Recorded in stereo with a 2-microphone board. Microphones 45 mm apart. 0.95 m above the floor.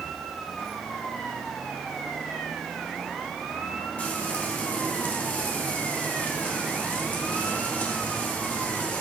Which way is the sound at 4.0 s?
35° left (ahead or behind).